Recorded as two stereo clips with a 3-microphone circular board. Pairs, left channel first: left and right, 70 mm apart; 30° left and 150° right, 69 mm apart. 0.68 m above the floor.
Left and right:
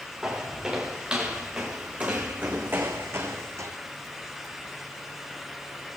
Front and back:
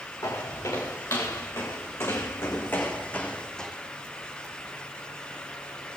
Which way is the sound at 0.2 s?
10° right.